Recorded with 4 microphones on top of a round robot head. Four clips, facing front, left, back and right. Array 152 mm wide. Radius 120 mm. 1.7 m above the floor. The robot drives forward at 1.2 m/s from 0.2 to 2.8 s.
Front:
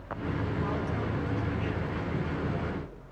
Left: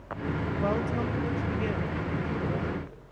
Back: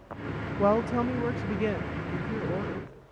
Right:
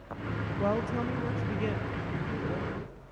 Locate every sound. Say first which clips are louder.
0.6 s a woman speaking: even, back 8 dB; 175° right, 0.9 m; by 2.9 s straight behind, 3.5 m